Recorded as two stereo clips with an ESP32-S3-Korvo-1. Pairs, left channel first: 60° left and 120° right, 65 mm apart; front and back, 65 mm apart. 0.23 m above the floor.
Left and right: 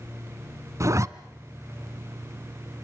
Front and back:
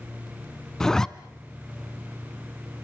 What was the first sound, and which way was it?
A zipper, 80° right.